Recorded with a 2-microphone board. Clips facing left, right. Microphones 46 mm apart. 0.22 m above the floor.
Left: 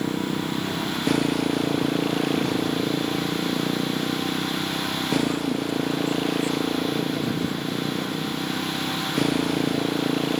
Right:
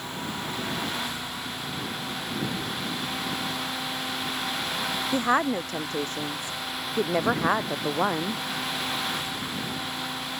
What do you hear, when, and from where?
0.0 s a motorcycle: 80° left; by 10.4 s 85° left
5.1 s a woman speaking: 65° right (ahead or behind)